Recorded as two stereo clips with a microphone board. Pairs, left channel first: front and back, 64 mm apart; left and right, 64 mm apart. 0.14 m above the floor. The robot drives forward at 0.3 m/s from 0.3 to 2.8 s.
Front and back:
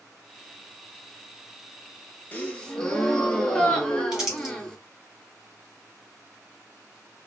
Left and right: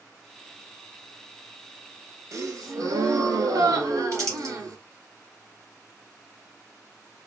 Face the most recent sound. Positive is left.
turn(degrees=-105)